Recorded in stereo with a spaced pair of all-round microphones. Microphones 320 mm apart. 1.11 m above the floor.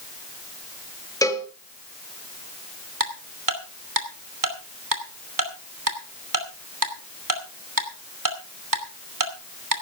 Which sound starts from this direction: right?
Ticking, at 3.0 s.